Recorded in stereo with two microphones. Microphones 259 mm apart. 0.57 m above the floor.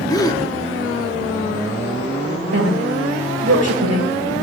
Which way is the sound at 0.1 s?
15° left (ahead or behind).